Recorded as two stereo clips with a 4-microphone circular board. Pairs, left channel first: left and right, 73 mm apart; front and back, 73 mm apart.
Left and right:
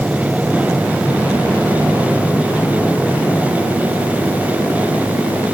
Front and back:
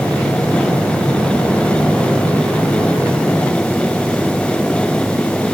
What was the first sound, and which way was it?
Only background noise.